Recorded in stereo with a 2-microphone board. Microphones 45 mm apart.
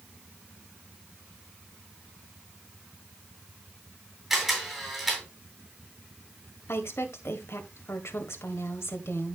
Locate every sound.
4.3 s a camera shutter: 5° right (ahead or behind), 7 m
6.7 s a woman speaking: 70° left (ahead or behind), 1.8 m